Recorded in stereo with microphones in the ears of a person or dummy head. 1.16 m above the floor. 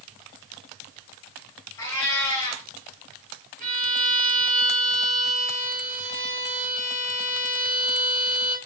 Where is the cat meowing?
20° left (ahead or behind), 1.6 m.